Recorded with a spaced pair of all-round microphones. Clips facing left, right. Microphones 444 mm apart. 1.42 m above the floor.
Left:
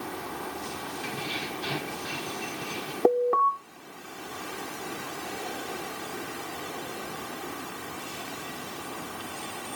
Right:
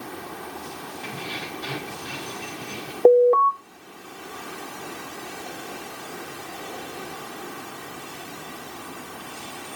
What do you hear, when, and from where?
1.0 s keys jangling: 70° right (ahead or behind), 8 m
3.0 s an alarm: 30° left (ahead or behind), 0.7 m